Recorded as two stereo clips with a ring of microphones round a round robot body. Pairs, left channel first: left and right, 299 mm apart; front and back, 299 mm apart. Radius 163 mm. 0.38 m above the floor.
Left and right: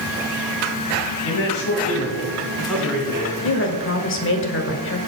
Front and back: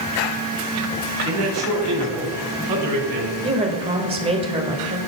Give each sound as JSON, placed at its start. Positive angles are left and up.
{"t": 1.2, "sound": "a man speaking", "azimuth_deg": 130, "distance_m": 2.0}
{"t": 3.4, "sound": "a woman speaking", "azimuth_deg": 115, "distance_m": 1.3}